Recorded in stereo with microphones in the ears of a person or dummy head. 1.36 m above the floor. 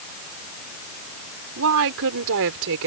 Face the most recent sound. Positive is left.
turn(degrees=-70)  # may be behind; listen again after turning